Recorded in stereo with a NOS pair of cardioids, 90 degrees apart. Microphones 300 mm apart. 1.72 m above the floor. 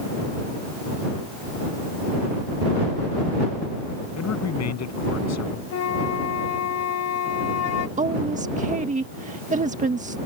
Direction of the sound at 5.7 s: 60° left.